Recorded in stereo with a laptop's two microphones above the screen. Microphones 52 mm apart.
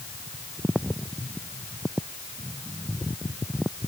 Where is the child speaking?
I don't hear a child speaking.